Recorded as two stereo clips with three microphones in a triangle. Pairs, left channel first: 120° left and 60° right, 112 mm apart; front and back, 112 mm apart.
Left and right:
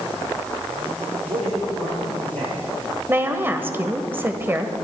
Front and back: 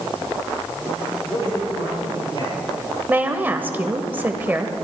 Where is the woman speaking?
115° right, 1.2 m.